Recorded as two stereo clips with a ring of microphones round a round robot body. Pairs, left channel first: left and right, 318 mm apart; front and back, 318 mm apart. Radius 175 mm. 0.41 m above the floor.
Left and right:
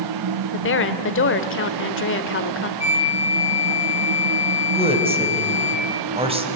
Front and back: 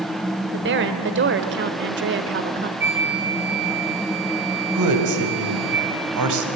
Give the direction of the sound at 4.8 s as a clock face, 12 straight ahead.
5 o'clock.